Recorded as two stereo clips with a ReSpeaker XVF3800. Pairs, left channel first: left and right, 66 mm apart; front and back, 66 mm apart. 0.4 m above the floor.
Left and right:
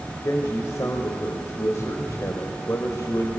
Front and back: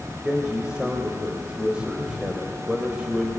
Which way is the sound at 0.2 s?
110° left.